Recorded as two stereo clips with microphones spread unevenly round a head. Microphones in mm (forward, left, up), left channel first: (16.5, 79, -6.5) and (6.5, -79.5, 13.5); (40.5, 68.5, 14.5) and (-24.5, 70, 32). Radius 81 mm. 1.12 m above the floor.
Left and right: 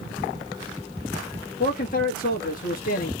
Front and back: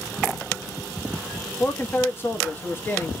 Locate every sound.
1.6 s a man speaking: 50° left, 1.8 m